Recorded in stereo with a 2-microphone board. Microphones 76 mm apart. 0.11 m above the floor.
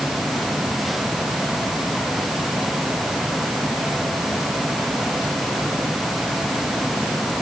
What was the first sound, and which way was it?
Only background noise.